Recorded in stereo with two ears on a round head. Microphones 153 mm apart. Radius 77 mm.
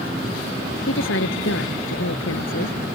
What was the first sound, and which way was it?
A woman speaking, 85° left.